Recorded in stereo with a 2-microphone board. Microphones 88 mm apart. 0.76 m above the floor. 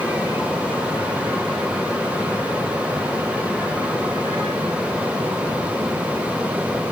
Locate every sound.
Only background noise.